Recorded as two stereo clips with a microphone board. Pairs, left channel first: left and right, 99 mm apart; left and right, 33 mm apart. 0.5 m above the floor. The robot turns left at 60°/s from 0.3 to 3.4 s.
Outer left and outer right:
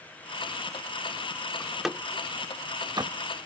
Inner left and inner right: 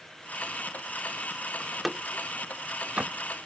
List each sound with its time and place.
1.6 s a door slam: 10° left (ahead or behind); by 3.1 s 45° right (ahead or behind)